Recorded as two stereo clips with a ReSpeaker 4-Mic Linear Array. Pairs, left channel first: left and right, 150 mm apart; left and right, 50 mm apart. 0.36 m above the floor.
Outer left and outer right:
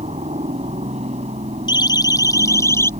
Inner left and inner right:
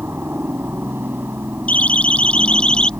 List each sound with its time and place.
0.0 s a helicopter: 50° right (ahead or behind)
1.7 s a siren: 30° left (ahead or behind); by 2.9 s 15° left (ahead or behind)